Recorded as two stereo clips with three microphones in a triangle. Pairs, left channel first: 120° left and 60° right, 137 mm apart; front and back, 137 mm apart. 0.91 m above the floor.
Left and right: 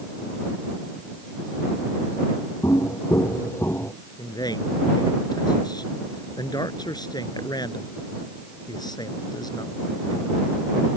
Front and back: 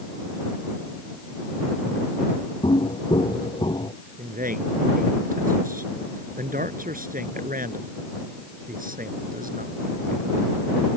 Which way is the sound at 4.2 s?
Straight behind.